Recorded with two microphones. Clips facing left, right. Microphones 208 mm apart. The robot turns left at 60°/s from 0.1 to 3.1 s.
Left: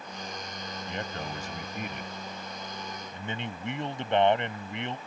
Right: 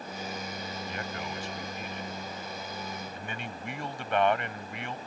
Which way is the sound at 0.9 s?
160° left.